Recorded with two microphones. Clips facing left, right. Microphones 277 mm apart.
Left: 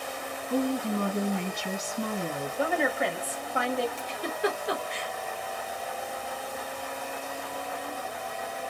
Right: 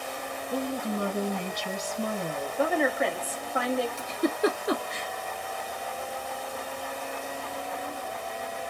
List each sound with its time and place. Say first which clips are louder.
0.5 s a woman speaking: left 3 dB; 55° left (ahead or behind), 1.5 m
2.6 s a woman speaking: right 2 dB; centre (ahead or behind), 1.4 m
4.0 s a giggle: right 5 dB; 50° right (ahead or behind), 0.8 m